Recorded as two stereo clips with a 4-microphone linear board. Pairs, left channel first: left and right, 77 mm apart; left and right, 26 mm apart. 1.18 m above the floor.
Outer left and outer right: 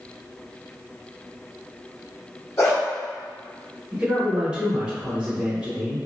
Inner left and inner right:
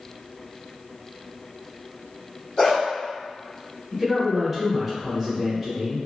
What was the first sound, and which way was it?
A dog barking, 35° left (ahead or behind).